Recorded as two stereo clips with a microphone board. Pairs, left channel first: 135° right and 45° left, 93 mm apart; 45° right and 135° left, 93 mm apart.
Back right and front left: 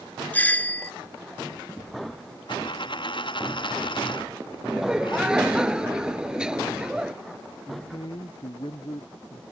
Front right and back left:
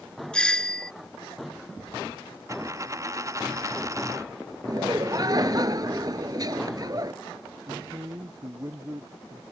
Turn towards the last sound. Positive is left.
turn(degrees=-170)